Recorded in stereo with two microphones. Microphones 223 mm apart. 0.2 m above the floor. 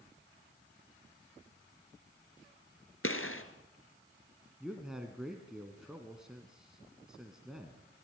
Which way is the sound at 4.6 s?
5° right (ahead or behind).